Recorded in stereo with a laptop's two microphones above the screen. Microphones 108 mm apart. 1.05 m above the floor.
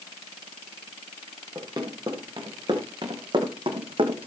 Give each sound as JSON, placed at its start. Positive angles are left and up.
{"t": 1.6, "sound": "running footsteps", "side_deg": -35, "distance_m": 6.0}